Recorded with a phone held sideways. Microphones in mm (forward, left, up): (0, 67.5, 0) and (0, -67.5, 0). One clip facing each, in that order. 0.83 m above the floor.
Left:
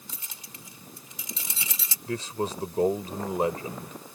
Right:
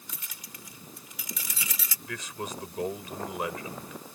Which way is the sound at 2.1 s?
30° left (ahead or behind).